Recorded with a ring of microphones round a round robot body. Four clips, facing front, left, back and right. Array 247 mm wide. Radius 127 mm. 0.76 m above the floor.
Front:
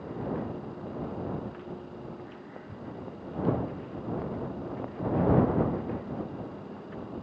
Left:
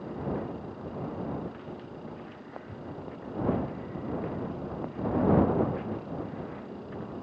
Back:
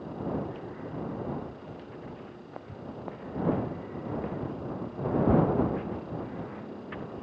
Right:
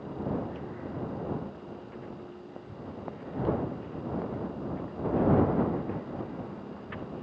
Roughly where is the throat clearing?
I don't hear throat clearing.